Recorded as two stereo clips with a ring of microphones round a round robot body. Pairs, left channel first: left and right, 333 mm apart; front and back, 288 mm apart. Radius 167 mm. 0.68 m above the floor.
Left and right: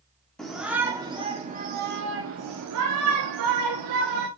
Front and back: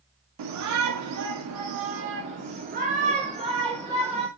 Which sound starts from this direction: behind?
A shout, at 0.4 s.